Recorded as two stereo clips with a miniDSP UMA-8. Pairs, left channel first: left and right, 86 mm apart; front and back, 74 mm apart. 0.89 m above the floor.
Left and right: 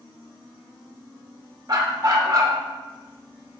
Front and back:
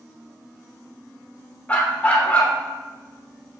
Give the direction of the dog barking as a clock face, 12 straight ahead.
2 o'clock.